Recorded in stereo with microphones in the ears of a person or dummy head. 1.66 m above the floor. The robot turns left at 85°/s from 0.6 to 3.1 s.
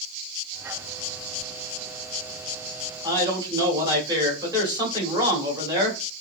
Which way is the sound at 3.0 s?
25° right (ahead or behind).